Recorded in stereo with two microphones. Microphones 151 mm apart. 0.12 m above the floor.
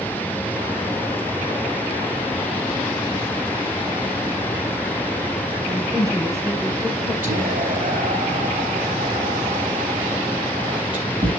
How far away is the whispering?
About 3.5 m.